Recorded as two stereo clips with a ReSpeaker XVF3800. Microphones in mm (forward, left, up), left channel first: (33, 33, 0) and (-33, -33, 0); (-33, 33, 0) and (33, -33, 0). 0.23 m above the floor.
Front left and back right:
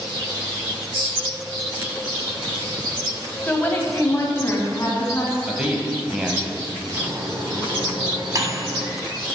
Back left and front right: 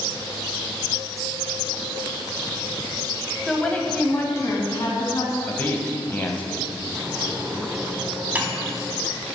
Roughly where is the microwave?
Right.